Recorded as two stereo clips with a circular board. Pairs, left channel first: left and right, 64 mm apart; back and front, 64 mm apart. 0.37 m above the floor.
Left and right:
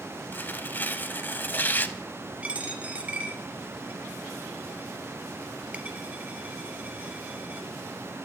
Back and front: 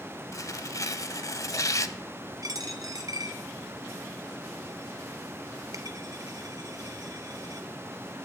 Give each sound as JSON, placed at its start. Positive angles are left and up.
{"t": 0.3, "sound": "tearing paper", "azimuth_deg": 150, "distance_m": 0.6}
{"t": 2.4, "sound": "a dropped coin", "azimuth_deg": -20, "distance_m": 1.0}